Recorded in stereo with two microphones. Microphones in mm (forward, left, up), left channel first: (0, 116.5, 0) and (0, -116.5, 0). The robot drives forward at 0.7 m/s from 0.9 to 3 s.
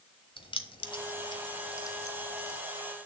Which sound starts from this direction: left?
Keys jangling, at 0.4 s.